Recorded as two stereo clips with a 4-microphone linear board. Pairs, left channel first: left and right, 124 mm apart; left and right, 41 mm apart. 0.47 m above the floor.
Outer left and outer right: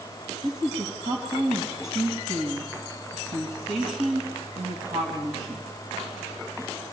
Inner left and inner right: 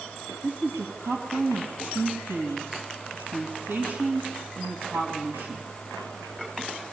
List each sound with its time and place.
0.4 s a woman speaking: 75° right (ahead or behind), 3.5 m